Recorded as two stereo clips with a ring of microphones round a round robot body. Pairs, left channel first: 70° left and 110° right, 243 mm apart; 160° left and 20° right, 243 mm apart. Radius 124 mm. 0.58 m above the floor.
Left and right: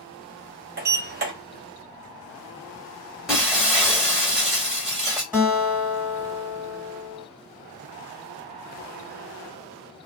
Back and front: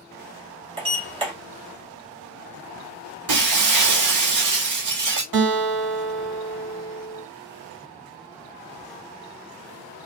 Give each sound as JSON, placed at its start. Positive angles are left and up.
{"t": 0.8, "sound": "a sliding door", "azimuth_deg": -80, "distance_m": 1.6}
{"t": 3.3, "sound": "breaking glass", "azimuth_deg": -25, "distance_m": 1.7}
{"t": 5.3, "sound": "a guitar", "azimuth_deg": -30, "distance_m": 1.9}